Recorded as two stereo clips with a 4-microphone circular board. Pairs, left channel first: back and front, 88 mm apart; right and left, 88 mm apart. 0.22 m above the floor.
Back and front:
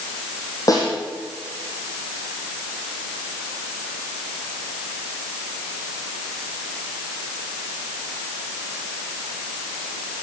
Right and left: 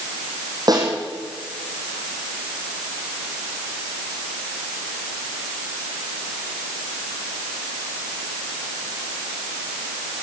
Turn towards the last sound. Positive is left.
turn(degrees=130)